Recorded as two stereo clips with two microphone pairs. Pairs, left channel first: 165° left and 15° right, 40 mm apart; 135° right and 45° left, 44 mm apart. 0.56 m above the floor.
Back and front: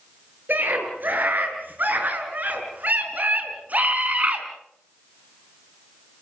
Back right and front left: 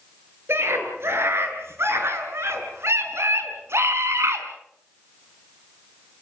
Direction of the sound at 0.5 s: 20° left.